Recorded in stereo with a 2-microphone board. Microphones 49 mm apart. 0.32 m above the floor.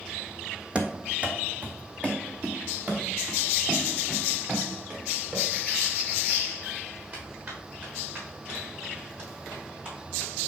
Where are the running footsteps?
25° right (ahead or behind), 1.0 m; by 10.3 s 35° right (ahead or behind), 8.5 m.